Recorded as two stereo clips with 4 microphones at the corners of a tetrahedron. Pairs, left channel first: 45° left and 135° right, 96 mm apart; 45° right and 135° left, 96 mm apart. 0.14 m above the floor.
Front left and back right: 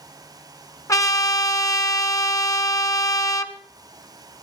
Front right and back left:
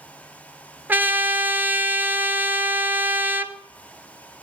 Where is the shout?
I don't hear a shout.